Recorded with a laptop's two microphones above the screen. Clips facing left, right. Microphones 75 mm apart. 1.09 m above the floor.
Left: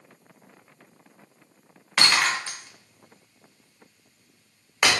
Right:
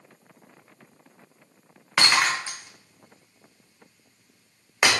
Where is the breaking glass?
20° right (ahead or behind), 0.8 m.